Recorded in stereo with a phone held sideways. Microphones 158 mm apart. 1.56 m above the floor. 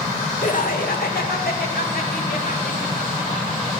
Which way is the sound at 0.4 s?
55° left (ahead or behind).